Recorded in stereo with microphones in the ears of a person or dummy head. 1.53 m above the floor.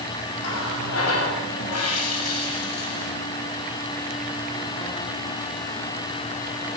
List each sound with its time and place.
0.4 s a running tap: 85° left, 7 m